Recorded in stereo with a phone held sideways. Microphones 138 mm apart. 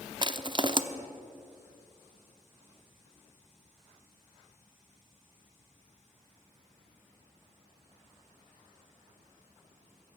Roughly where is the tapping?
I don't hear tapping.